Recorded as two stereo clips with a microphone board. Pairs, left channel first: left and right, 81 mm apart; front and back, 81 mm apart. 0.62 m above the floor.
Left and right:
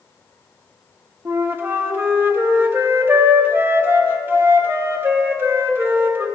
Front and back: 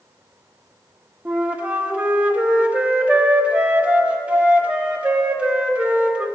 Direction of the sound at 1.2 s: 120° right.